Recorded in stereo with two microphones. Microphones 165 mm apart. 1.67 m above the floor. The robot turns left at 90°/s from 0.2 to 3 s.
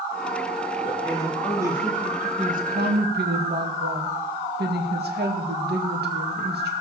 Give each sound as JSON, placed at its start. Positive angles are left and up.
{"t": 0.8, "sound": "a man speaking", "azimuth_deg": 55, "distance_m": 3.0}
{"t": 2.4, "sound": "a woman speaking", "azimuth_deg": -40, "distance_m": 2.0}